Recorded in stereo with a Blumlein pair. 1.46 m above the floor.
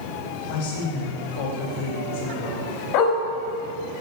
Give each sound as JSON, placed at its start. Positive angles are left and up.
{"t": 0.5, "sound": "a woman speaking", "azimuth_deg": 55, "distance_m": 6.5}
{"t": 2.9, "sound": "a dog barking", "azimuth_deg": 45, "distance_m": 4.0}